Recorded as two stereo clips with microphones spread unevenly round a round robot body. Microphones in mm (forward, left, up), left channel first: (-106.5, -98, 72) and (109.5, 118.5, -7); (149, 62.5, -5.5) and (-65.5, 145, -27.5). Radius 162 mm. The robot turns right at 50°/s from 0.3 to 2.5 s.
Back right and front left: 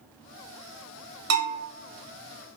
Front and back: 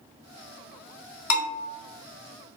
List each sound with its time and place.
1.3 s a bell: 5° right, 0.7 m; by 1.6 s 10° left, 0.7 m